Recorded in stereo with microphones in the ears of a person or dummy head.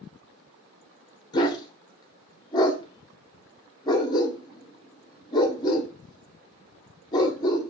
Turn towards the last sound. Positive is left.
turn(degrees=25)  # may be behind; listen again after turning